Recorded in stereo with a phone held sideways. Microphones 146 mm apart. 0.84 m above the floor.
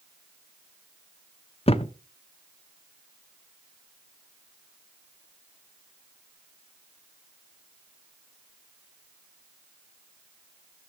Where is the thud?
40° left (ahead or behind), 0.6 m.